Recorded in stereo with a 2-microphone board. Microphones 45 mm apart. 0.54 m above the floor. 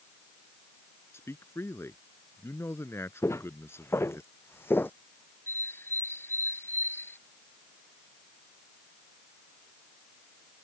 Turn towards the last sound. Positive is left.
turn(degrees=55)  # may be behind; listen again after turning